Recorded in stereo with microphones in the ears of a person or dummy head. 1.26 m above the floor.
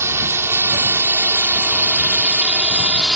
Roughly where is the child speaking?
No child speaking in this recording.